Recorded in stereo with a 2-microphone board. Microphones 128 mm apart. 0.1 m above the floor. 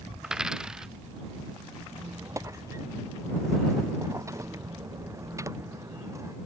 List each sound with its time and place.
0.2 s a dropped coin: 5° right (ahead or behind)
1.9 s a squeak: 25° right (ahead or behind)